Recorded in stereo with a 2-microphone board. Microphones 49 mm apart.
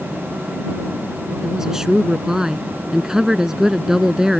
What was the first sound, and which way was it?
A woman speaking, 10° right (ahead or behind).